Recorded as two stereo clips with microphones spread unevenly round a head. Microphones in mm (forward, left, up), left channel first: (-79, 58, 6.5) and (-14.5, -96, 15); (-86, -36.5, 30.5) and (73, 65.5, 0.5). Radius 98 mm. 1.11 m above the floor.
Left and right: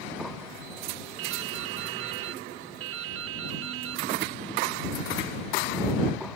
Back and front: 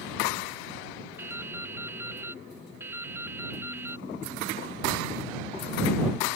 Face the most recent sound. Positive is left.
turn(degrees=-50)